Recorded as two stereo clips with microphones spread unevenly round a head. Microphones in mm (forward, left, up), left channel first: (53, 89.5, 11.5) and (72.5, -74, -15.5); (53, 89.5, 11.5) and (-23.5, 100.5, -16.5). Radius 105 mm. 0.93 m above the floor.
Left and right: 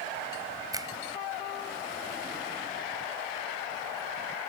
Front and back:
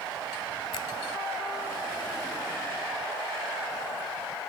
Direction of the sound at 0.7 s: 15° right.